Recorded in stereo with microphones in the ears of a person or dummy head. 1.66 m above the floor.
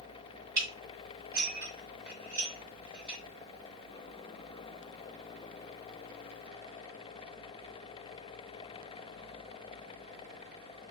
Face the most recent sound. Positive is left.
turn(degrees=-60)  # may be behind; listen again after turning